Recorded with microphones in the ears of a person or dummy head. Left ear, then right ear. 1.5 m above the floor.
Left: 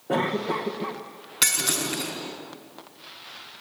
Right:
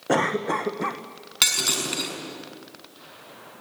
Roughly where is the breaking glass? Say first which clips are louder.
Right 2 dB; centre.